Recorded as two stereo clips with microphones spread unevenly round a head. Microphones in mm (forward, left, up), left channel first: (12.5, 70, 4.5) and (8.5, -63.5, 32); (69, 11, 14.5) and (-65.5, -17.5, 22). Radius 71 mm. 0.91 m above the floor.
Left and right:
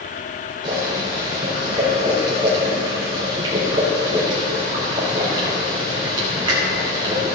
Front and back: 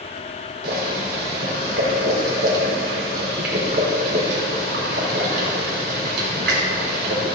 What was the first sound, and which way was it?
Boiling, 155° right.